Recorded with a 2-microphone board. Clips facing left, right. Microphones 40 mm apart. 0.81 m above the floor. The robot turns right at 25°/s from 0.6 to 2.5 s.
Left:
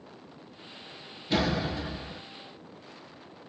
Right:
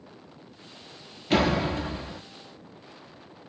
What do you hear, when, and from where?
1.3 s a door slam: 65° right (ahead or behind), 0.9 m; by 2.2 s 45° right (ahead or behind), 0.9 m